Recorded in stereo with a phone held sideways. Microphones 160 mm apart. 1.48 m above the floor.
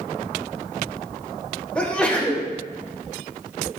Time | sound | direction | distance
1.8 | a sneeze | 5° left (ahead or behind) | 1.3 m